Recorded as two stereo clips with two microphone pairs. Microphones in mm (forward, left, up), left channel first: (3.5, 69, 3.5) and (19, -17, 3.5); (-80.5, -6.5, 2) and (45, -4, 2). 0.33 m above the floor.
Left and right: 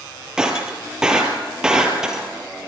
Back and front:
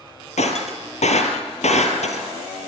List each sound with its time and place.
0.4 s breaking glass: 160° right, 3 m